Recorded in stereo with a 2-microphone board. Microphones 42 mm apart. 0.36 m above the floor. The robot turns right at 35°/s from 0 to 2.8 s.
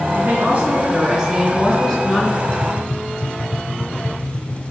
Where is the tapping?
25° left (ahead or behind), 1.5 m; by 4.6 s 35° left (ahead or behind), 1.5 m.